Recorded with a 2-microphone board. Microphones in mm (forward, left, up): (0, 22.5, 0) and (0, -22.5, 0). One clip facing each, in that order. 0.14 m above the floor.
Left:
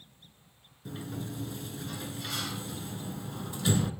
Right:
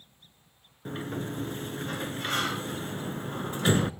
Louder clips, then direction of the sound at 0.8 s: Right 5 dB; 50° right (ahead or behind).